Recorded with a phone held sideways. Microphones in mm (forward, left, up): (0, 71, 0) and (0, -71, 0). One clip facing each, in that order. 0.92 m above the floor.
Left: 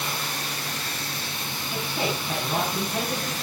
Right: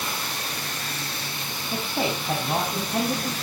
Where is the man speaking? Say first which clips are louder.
Right 2 dB; 40° right (ahead or behind), 5.5 m.